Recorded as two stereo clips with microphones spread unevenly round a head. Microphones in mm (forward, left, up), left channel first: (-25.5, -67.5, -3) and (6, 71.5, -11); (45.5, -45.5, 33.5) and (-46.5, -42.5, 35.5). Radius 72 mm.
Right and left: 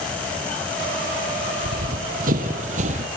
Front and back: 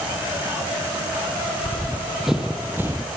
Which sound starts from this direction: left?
Running footsteps, at 1.6 s.